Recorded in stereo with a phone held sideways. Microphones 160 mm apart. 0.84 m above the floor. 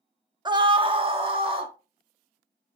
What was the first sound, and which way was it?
A scream, 30° right (ahead or behind).